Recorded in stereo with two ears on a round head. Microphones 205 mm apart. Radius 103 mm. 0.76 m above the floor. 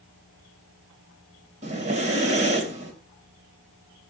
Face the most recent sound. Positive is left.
turn(degrees=-35)  # may be behind; listen again after turning